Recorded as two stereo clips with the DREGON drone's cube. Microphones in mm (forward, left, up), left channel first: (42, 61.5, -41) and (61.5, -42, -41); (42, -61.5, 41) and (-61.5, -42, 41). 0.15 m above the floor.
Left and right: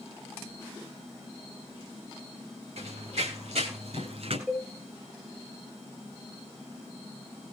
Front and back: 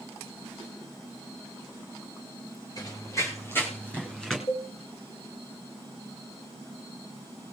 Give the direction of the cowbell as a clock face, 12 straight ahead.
12 o'clock.